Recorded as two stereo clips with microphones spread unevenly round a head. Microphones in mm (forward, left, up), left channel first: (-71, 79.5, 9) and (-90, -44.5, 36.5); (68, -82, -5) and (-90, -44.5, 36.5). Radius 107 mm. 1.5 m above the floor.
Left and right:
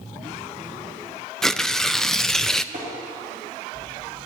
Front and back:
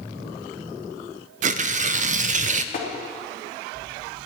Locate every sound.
1.4 s tearing paper: 175° left, 0.5 m
2.7 s tapping: 45° right, 3.5 m